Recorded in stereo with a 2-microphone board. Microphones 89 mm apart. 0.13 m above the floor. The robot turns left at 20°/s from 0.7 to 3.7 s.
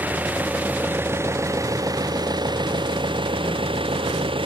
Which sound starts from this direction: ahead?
An engine running, at 0.0 s.